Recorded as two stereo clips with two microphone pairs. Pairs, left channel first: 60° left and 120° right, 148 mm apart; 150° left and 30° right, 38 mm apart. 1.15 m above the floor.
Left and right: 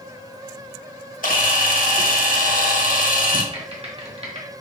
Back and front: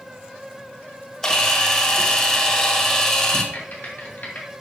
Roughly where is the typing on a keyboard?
Behind.